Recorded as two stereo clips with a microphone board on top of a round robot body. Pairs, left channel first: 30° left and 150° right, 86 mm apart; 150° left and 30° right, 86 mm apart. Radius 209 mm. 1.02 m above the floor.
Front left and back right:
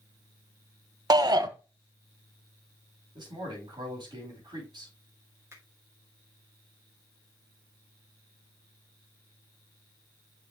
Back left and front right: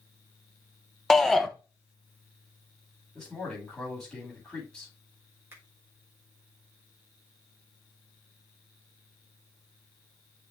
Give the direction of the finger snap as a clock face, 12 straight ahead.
3 o'clock.